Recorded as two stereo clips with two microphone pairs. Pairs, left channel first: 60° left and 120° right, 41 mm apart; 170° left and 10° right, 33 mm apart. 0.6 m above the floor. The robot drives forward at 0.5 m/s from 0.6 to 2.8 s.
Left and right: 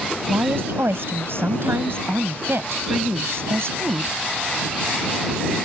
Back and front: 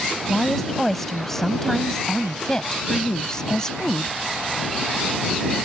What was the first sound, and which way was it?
A woman speaking, 105° right.